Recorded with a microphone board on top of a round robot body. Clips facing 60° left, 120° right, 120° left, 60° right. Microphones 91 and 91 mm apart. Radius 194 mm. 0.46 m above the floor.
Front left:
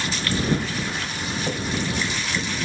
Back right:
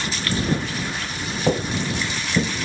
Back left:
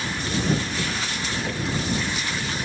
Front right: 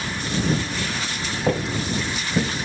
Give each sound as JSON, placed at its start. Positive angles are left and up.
{"t": 1.5, "sound": "footsteps", "azimuth_deg": -105}